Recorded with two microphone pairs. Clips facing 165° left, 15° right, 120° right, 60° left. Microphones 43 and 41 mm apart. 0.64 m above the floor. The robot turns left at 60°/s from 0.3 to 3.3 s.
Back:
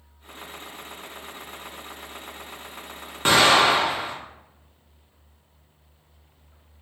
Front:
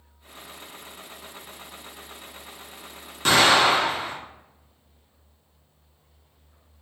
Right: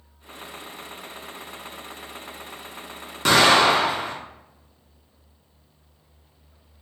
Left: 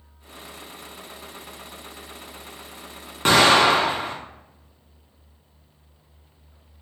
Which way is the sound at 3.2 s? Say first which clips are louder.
Back 1 dB, left 1 dB; 105° left.